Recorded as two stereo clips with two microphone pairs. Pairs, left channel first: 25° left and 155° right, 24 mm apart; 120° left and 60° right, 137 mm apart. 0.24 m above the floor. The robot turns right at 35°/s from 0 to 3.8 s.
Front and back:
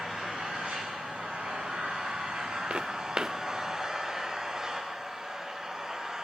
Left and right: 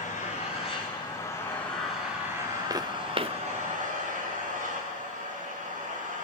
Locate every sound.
0.0 s an engine running: 145° left, 7.5 m; by 6.2 s 85° right, 7.5 m
2.7 s footsteps: 125° right, 1.3 m; by 3.4 s 100° right, 1.3 m